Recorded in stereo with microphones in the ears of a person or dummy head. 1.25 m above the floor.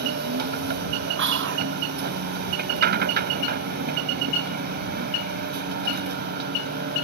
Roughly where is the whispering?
Right.